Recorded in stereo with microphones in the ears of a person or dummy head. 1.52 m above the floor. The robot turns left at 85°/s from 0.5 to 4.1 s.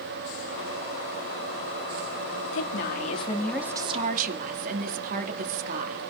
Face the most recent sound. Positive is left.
turn(degrees=-45)